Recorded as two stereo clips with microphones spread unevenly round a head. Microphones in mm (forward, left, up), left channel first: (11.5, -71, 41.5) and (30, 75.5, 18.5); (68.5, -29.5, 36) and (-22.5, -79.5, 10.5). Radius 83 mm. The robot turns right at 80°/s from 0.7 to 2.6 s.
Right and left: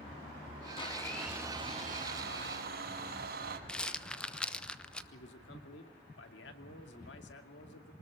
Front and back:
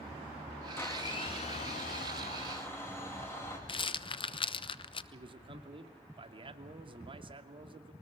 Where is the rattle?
10° right, 1.1 m.